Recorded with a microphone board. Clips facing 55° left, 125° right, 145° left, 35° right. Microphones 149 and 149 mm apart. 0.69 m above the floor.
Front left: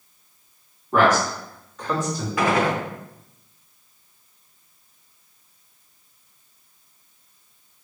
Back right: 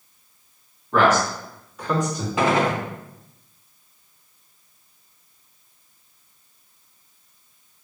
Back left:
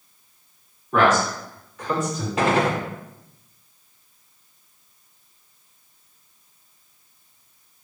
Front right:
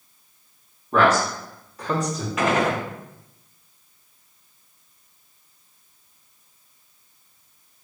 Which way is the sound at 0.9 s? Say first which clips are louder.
Even, even; 5° right.